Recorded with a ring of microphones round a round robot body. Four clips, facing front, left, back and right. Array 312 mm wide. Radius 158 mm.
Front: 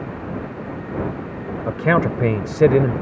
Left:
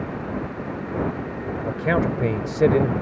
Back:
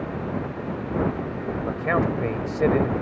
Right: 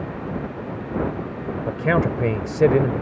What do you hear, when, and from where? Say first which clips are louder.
1.7 s a man speaking: right 1 dB, front 6 dB; 10° right